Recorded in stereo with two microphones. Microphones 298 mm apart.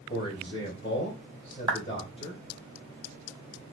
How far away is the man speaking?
About 1.8 m.